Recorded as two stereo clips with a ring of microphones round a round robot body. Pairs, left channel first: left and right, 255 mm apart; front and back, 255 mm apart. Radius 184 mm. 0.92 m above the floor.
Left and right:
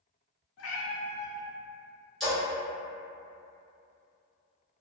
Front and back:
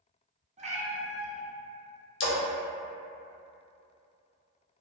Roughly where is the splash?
Ahead.